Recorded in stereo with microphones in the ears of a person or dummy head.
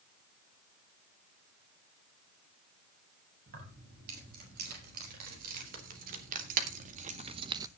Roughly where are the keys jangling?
Right.